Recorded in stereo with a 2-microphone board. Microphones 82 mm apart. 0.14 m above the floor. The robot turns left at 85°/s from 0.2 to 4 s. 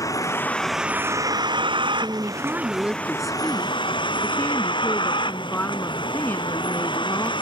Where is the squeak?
No squeak in this recording.